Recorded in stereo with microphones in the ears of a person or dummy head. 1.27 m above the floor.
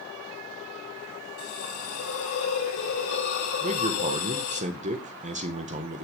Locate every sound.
1.4 s a hiss: 85° left, 3 m
3.6 s a man speaking: 40° right (ahead or behind), 1.4 m